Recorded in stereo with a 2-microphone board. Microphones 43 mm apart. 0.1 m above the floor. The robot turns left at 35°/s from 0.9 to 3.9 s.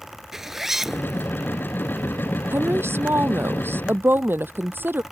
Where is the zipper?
5° right (ahead or behind); by 1.3 s 15° right (ahead or behind).